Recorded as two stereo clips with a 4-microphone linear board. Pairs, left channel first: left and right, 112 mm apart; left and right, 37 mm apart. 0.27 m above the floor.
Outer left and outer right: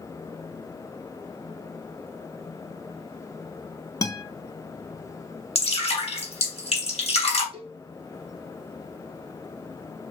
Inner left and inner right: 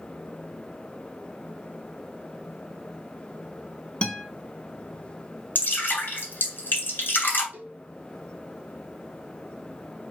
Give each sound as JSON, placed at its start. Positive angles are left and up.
{"t": 4.0, "sound": "a guitar", "side_deg": 30, "distance_m": 0.6}
{"t": 5.5, "sound": "dripping", "side_deg": 65, "distance_m": 1.8}
{"t": 7.5, "sound": "a cowbell", "side_deg": -60, "distance_m": 1.1}